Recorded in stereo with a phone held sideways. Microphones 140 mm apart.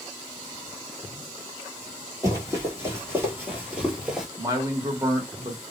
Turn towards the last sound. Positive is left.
turn(degrees=-25)  # may be behind; listen again after turning